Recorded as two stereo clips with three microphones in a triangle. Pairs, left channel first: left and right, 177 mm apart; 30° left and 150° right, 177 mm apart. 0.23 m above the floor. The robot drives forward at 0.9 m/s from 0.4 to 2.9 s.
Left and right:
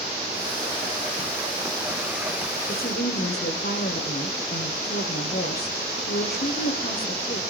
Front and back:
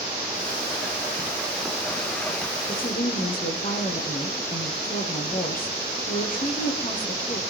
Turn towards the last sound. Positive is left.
turn(degrees=65)